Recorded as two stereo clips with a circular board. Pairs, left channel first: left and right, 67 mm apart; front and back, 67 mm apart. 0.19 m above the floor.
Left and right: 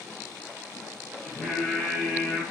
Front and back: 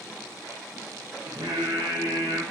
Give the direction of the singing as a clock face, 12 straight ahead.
6 o'clock.